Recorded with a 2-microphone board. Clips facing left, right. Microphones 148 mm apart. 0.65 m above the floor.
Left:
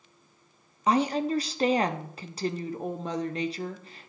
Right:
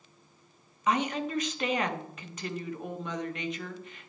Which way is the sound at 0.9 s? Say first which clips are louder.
Left 4 dB; 35° left (ahead or behind).